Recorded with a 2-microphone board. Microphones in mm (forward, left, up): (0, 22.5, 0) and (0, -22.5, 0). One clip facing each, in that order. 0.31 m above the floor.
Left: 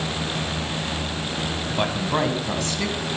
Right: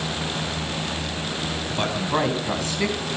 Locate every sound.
1.7 s a man speaking: 15° left (ahead or behind), 2.5 m; by 3.0 s 15° right (ahead or behind), 3 m